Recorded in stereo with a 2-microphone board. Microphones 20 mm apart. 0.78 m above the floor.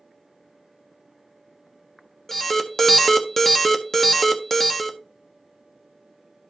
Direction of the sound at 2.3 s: 15° left (ahead or behind).